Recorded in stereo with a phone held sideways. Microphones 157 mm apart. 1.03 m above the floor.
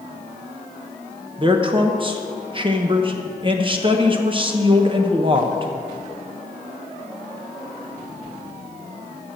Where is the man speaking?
30° right (ahead or behind), 0.7 m.